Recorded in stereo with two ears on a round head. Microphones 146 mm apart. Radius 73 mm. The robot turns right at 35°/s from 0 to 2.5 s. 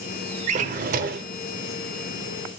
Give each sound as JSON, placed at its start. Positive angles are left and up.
{"t": 0.5, "sound": "a drawer", "side_deg": -45, "distance_m": 0.8}